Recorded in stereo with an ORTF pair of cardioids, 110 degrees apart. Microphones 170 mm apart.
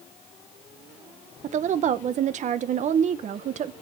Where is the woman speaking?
45° right, 0.8 m.